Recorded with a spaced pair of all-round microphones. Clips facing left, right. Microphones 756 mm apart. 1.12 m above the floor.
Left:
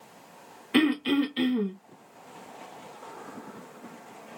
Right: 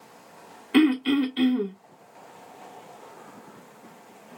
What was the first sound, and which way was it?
Throat clearing, 15° left (ahead or behind).